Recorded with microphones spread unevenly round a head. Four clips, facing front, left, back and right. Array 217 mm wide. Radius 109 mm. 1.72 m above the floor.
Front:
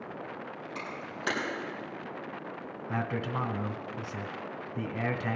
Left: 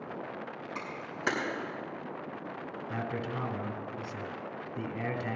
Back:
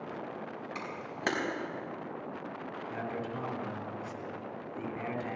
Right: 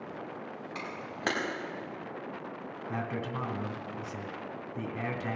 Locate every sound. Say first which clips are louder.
0.8 s a camera shutter: right 1 dB, front 1 dB; 130° right, 4 m
2.9 s a man speaking: right 1 dB, front 5 dB; 15° right, 1.3 m